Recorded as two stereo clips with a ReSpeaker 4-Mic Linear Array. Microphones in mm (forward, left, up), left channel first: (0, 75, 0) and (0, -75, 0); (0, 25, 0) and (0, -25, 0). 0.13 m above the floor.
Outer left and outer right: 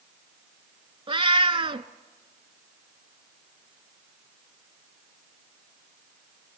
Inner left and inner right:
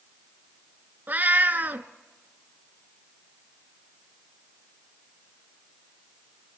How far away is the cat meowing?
About 0.7 m.